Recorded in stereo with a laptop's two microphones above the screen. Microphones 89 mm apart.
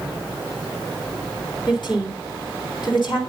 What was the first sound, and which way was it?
A woman speaking, 55° left (ahead or behind).